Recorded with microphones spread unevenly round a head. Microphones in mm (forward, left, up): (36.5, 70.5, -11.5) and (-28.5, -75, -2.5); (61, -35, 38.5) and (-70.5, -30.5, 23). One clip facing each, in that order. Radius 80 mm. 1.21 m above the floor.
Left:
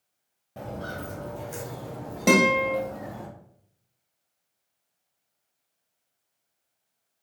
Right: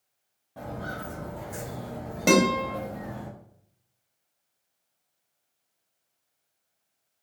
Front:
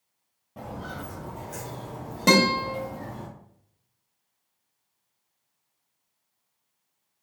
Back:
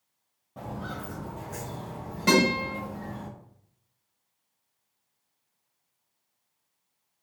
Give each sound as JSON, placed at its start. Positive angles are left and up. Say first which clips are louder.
{"t": 0.6, "sound": "footsteps", "louder": "left 1 dB, even", "azimuth_deg": 65, "distance_m": 1.3}
{"t": 2.3, "sound": "a guitar", "louder": "left 1 dB, front 2 dB", "azimuth_deg": -25, "distance_m": 1.3}